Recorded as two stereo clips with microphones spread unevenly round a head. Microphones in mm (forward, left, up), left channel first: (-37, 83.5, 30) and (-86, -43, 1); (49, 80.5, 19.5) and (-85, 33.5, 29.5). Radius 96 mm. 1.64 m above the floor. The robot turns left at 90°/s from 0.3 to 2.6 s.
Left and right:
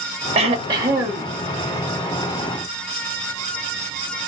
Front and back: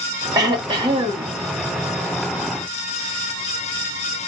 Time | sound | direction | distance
0.3 | throat clearing | 125° right | 1.1 m